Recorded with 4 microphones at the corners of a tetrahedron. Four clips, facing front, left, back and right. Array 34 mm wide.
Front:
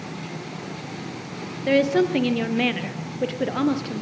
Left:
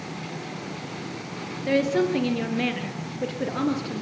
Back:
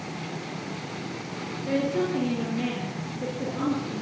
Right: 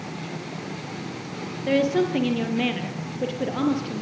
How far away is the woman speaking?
About 2.5 m.